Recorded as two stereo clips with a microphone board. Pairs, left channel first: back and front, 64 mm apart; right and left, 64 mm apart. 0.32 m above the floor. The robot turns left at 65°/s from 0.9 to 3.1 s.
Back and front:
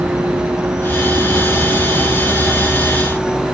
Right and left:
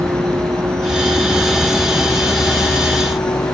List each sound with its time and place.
0.0 s a vehicle: 50° left; by 3.5 s 90° right